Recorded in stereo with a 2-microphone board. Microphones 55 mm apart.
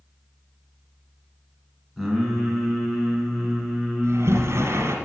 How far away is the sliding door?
About 1.8 m.